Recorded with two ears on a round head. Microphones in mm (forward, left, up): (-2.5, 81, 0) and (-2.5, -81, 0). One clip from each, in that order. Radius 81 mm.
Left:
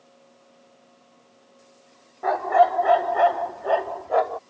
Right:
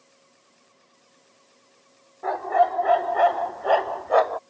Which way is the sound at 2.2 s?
15° left (ahead or behind).